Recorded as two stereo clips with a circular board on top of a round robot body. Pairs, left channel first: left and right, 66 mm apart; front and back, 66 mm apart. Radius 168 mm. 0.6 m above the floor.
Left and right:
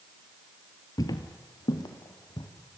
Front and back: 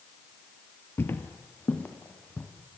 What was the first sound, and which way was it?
Footsteps, 60° left.